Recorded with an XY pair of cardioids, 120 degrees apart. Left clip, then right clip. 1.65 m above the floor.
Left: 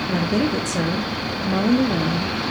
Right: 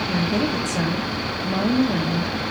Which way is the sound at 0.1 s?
20° left.